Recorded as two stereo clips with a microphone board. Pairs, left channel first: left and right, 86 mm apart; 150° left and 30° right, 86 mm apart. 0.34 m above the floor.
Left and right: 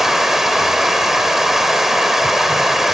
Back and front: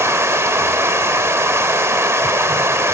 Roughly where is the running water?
Ahead.